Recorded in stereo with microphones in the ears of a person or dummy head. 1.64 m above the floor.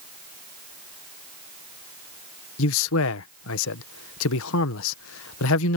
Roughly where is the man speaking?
Left.